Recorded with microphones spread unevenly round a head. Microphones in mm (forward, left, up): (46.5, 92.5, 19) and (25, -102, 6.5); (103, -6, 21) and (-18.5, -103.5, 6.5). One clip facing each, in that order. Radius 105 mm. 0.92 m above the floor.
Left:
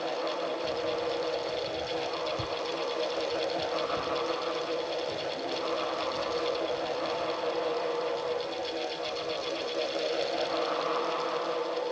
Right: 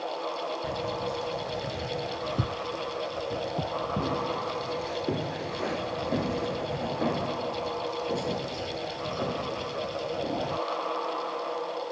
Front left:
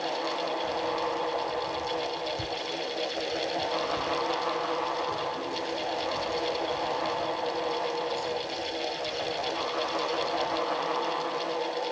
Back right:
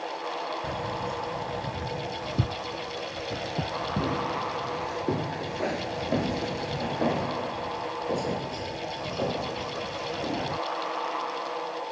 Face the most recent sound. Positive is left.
turn(degrees=-110)